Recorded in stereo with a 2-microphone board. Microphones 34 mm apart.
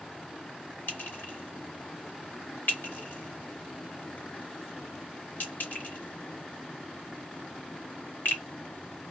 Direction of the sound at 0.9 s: 75° left (ahead or behind).